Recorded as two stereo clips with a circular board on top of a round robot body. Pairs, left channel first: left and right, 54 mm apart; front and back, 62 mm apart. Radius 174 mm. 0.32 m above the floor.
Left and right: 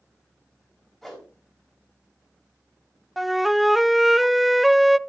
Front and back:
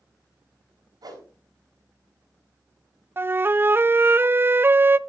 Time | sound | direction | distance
1.0 | a whoosh | straight behind | 4.5 m
3.2 | a flute | straight behind | 0.5 m